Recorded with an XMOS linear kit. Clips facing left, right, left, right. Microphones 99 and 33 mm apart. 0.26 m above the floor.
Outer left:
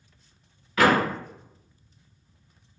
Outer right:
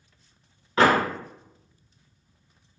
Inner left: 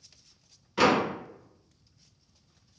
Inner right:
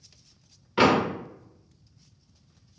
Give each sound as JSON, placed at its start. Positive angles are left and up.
{"t": 0.8, "sound": "a door slam", "side_deg": -30, "distance_m": 0.9}